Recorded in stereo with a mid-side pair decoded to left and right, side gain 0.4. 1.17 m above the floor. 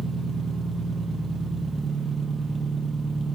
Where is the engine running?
30° right, 0.7 m.